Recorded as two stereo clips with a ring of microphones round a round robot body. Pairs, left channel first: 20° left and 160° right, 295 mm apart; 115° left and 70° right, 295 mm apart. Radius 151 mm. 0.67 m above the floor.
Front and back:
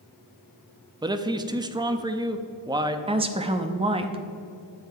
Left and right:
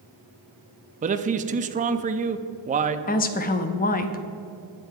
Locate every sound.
1.0 s a man speaking: 100° right, 0.6 m
3.1 s a woman speaking: 145° left, 0.7 m